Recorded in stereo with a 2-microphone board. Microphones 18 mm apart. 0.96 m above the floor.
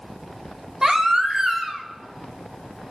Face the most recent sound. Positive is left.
turn(degrees=-35)  # may be behind; listen again after turning